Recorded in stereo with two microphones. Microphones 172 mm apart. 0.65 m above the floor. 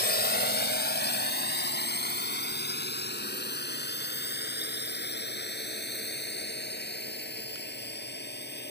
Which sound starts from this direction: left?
A drone, at 0.0 s.